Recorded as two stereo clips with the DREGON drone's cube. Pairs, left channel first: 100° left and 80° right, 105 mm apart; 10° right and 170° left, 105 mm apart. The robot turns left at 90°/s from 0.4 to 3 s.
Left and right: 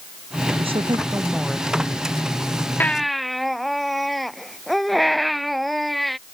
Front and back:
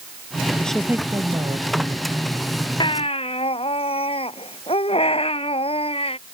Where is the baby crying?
30° left; by 6.2 s 10° left.